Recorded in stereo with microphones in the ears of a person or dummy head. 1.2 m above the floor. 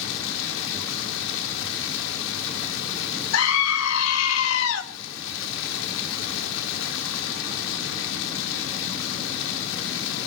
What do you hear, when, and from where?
0.0 s running water: 80° left, 2.0 m
3.3 s a scream: 75° left (ahead or behind), 1.8 m